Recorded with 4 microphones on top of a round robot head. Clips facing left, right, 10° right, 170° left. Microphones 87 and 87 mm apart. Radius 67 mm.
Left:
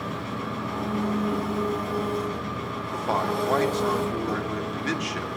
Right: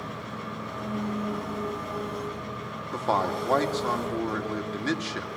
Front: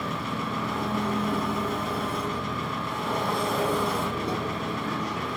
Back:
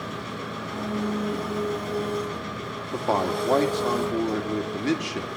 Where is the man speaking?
165° right, 2.5 m.